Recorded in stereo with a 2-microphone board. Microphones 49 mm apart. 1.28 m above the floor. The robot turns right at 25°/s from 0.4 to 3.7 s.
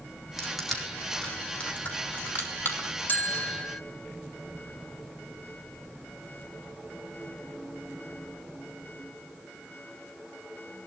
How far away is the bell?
About 1.0 m.